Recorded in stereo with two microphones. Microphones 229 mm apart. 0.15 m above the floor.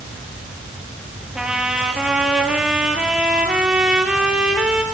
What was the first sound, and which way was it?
A trumpet, 5° right (ahead or behind).